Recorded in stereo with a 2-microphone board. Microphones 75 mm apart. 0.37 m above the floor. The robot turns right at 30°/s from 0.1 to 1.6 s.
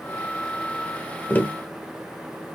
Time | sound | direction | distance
1.3 | tapping | 25° left (ahead or behind) | 1.0 m